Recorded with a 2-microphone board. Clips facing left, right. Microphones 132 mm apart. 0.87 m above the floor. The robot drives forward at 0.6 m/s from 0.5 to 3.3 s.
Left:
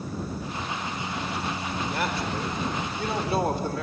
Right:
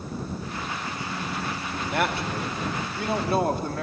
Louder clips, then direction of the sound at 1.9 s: Right 5 dB; 60° right (ahead or behind).